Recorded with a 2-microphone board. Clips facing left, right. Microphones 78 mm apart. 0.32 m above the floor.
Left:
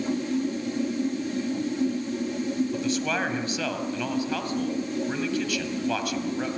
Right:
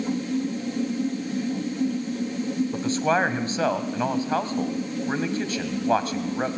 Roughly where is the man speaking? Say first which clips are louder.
Right 4 dB; right.